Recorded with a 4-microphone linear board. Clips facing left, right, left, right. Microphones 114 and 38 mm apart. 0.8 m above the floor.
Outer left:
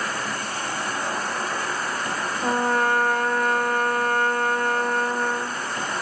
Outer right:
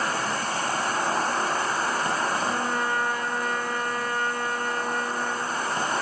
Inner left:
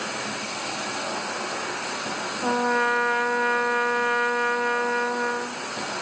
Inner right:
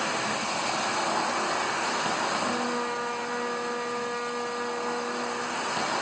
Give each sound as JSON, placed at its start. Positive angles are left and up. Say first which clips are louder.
{"t": 0.0, "sound": "an insect", "louder": "outer right 2 dB, inner right 2 dB", "side_deg": -25, "distance_m": 2.5}
{"t": 2.4, "sound": "a trumpet", "louder": "outer left 5 dB, inner left 6 dB", "side_deg": 50, "distance_m": 1.2}